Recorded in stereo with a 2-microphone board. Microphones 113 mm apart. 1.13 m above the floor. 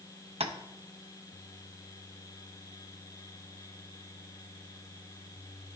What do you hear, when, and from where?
0.4 s tapping: 65° right (ahead or behind), 0.6 m